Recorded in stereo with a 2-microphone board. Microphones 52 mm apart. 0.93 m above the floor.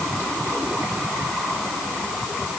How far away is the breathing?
I don't hear breathing.